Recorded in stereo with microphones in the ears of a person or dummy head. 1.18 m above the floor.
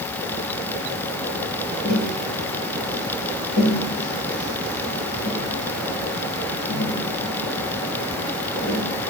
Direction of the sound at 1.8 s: 75° left (ahead or behind).